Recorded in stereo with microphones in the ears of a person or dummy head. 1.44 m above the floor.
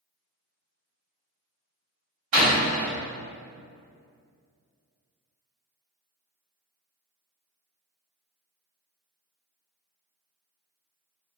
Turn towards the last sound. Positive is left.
turn(degrees=-65)  # may be behind; listen again after turning